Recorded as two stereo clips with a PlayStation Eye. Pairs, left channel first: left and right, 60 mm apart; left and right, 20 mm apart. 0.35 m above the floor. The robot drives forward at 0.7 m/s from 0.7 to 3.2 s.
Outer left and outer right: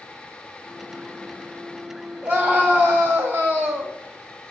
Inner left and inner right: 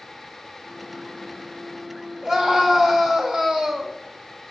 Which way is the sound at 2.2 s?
25° right (ahead or behind).